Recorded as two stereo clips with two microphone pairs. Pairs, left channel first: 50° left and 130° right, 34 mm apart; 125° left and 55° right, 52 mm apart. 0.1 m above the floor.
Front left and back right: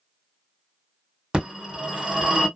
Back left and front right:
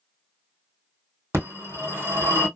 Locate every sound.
1.3 s a phone ringing: 65° right, 1.9 m